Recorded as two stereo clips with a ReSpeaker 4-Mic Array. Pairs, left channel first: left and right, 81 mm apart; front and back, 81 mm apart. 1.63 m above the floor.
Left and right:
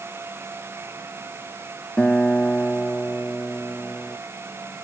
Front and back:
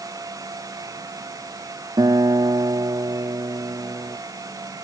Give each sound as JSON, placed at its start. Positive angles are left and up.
{"t": 2.0, "sound": "a guitar", "azimuth_deg": 165}